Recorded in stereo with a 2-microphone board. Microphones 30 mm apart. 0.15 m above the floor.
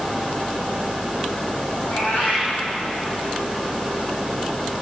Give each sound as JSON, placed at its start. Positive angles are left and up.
{"t": 1.8, "sound": "a cat meowing", "side_deg": 80, "distance_m": 3.5}